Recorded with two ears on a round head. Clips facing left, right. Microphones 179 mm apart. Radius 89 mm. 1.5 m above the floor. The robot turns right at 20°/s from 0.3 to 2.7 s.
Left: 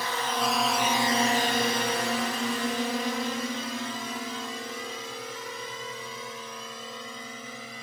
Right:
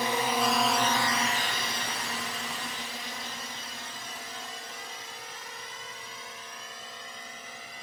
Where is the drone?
20° right (ahead or behind); by 7.8 s 75° left (ahead or behind).